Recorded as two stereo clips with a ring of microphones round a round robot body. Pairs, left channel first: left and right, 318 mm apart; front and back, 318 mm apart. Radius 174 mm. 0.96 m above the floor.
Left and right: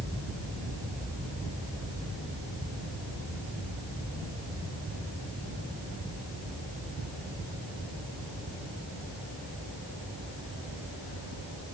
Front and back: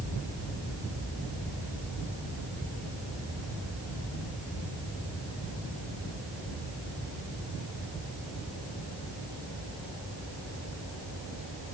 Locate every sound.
Only background noise.